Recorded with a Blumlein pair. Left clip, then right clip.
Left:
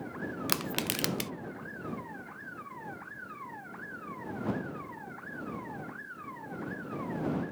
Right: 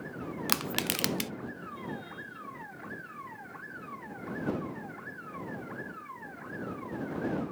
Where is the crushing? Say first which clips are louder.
Right 2 dB; 5° right.